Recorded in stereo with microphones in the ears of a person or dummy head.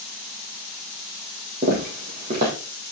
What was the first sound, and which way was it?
Footsteps, 40° right (ahead or behind).